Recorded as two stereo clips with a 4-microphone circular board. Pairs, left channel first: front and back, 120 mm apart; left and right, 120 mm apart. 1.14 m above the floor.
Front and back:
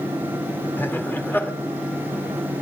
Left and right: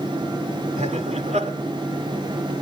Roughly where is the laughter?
Right.